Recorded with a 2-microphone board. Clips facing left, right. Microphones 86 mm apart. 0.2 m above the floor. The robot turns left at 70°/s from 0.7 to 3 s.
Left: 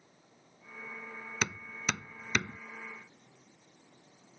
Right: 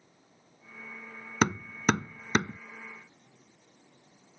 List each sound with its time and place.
1.4 s hammering: 45° right (ahead or behind); by 2.6 s 25° right (ahead or behind)